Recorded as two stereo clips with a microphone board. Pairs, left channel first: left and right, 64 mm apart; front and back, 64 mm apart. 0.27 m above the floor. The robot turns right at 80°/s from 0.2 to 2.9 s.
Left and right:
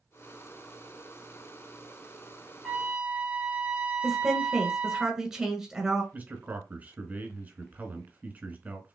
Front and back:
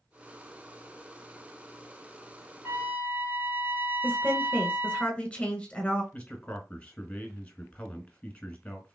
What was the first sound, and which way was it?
A trumpet, 170° right.